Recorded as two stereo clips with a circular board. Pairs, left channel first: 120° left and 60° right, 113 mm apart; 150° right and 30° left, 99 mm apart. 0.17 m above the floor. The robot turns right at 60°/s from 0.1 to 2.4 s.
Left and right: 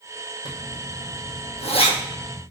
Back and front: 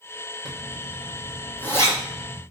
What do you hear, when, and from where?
0.5 s a zipper: 70° left, 1.2 m; by 2.4 s 175° right, 1.2 m